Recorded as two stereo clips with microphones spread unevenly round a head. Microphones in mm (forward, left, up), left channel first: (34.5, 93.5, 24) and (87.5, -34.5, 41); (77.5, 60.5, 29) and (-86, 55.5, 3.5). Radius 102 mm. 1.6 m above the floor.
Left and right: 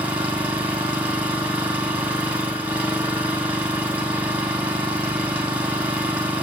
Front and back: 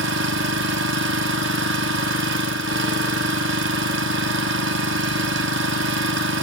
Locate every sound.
0.0 s an engine running: 145° right, 0.8 m